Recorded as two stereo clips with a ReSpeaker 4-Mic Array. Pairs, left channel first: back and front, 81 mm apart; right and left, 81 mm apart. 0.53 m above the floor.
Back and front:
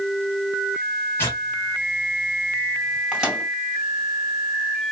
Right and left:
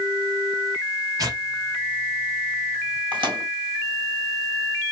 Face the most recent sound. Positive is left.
turn(degrees=80)